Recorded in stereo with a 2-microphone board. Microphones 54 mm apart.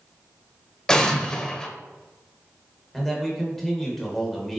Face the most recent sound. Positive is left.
turn(degrees=5)  # may be behind; listen again after turning